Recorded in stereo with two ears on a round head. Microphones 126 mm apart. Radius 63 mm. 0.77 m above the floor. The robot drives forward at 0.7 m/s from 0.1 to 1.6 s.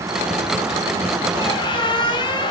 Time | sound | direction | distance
1.4 | a squeak | 35° left (ahead or behind) | 1.7 m